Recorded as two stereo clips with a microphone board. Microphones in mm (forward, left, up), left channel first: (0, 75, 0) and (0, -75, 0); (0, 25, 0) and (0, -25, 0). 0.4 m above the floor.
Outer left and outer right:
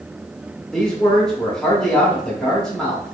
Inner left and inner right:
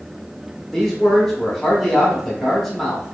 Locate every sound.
0.7 s a man speaking: 5° left (ahead or behind), 0.8 m